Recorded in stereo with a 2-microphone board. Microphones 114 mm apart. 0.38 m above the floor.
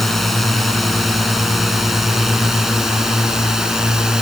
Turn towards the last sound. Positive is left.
turn(degrees=-5)  # may be behind; listen again after turning